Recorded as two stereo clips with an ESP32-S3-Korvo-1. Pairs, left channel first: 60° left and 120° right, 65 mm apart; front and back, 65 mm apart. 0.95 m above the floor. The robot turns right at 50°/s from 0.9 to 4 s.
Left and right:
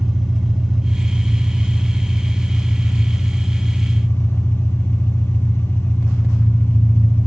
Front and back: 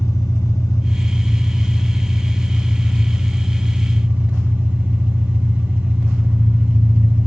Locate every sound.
0.0 s an engine running: 40° right, 3.5 m; by 7.3 s 115° left, 3.5 m